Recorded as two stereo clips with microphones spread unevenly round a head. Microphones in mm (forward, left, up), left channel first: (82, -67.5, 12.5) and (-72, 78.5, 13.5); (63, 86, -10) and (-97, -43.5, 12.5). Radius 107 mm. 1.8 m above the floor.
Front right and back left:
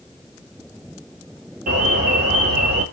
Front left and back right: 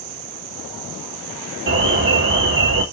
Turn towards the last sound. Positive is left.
turn(degrees=-170)